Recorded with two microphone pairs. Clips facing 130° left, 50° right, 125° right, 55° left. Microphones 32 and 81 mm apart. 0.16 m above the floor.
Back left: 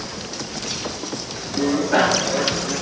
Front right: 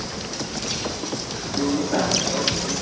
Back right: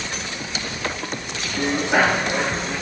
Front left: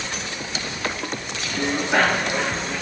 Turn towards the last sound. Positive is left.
turn(degrees=155)